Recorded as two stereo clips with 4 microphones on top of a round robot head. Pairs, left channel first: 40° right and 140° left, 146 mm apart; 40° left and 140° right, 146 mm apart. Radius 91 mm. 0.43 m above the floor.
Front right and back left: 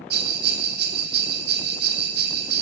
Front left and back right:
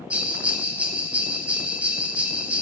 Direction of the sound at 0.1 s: 140° left.